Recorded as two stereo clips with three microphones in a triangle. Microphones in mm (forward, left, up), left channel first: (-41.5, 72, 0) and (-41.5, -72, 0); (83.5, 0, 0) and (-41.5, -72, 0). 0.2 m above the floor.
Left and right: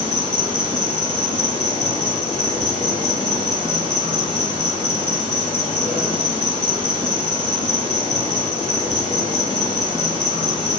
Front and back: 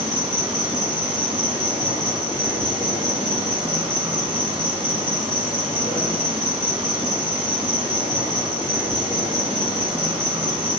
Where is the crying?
No crying in this recording.